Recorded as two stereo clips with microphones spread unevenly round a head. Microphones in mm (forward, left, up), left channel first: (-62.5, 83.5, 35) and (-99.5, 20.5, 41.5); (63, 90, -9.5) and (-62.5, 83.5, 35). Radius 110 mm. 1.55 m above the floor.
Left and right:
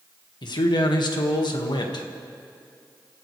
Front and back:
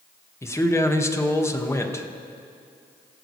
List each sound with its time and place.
0.4 s a man speaking: 75° left, 1.9 m